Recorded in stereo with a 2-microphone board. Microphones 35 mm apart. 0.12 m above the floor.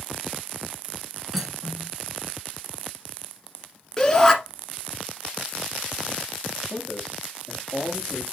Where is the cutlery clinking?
10° right (ahead or behind), 0.9 m.